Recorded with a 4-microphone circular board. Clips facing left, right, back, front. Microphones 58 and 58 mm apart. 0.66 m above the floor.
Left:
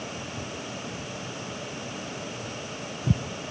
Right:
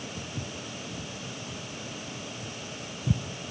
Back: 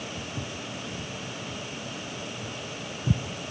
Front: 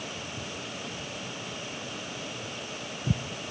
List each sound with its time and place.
0.2 s footsteps: 115° right, 2.5 m; by 3.2 s 75° left, 0.8 m